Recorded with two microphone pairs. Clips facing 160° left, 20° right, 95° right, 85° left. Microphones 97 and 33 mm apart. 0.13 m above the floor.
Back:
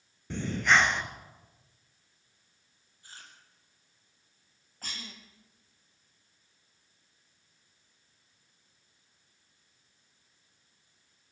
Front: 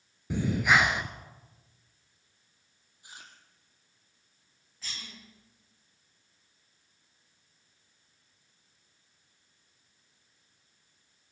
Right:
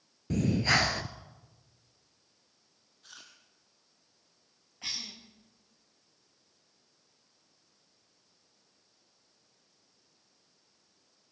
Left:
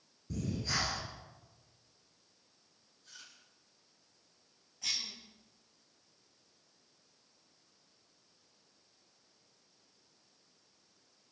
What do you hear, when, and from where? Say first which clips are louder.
0.3 s breathing: front 1 dB, right 10 dB; 100° right, 1.3 m
3.0 s chewing: front 1 dB, right 3 dB; 90° right, 3.5 m
4.8 s a cough: back 2 dB, left 1 dB; 155° right, 7 m